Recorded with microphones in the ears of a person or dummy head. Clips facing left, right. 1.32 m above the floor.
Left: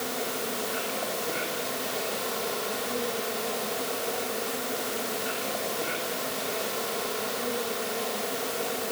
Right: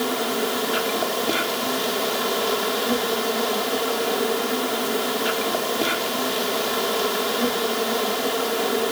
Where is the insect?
90° right, 3 m.